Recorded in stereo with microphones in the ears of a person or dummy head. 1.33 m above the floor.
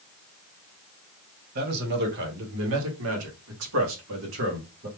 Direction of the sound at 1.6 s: 50° right (ahead or behind).